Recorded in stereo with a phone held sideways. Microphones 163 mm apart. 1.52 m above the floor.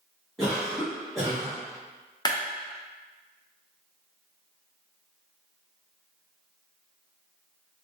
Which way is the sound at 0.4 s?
Centre (ahead or behind).